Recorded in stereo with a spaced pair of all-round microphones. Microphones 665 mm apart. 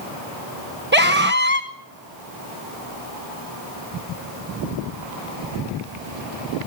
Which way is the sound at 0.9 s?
15° right (ahead or behind).